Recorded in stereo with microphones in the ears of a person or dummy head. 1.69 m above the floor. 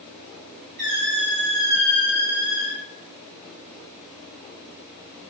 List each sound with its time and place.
0.8 s a squeak: 45° right (ahead or behind), 1.7 m